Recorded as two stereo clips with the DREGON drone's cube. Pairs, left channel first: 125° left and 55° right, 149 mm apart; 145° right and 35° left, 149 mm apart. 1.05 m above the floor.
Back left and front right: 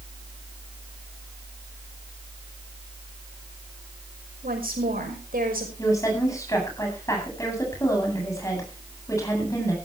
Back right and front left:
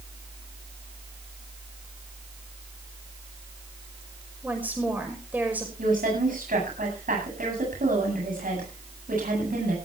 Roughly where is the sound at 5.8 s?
Ahead left.